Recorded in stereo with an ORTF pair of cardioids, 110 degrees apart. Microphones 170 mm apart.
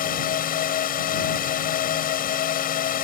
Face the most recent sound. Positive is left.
turn(degrees=55)